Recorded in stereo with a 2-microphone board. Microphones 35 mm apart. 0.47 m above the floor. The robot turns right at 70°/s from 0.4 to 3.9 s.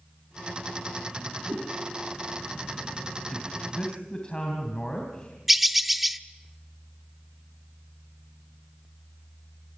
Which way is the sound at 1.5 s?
85° right.